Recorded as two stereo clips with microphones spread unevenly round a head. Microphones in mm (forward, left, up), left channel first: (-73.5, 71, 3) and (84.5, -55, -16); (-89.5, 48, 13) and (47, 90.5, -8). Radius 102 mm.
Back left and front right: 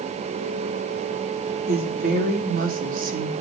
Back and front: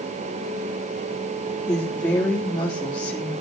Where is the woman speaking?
85° right, 4 m; by 3.3 s 90° right, 3 m.